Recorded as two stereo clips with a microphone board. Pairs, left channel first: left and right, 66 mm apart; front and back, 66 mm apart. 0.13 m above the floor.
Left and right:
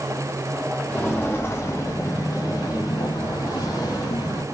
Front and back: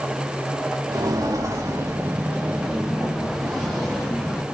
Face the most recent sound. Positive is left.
turn(degrees=75)